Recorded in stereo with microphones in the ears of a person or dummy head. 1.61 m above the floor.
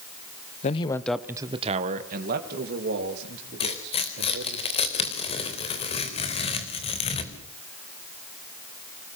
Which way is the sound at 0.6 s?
35° left (ahead or behind).